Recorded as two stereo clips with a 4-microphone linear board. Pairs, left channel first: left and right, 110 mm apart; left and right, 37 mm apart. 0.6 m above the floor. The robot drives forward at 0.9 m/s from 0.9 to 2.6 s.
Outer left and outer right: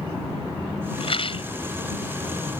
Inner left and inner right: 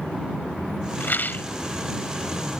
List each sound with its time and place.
1.0 s a rattle: 65° left (ahead or behind); by 1.5 s 60° left (ahead or behind)